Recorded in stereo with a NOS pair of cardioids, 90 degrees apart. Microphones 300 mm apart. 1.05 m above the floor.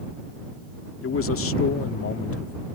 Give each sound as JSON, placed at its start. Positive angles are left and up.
{"t": 1.0, "sound": "a man speaking", "azimuth_deg": 45}